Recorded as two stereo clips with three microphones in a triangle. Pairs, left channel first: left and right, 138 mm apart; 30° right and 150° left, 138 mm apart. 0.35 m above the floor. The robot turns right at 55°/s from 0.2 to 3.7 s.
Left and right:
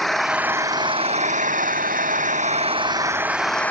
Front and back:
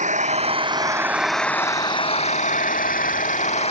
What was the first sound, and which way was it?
An engine running, straight behind.